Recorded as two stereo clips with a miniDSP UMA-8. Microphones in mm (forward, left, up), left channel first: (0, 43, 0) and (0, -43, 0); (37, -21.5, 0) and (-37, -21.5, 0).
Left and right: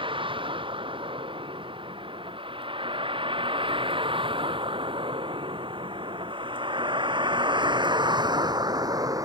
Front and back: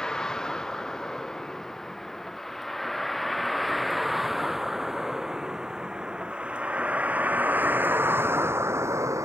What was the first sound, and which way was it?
A vehicle, 80° right.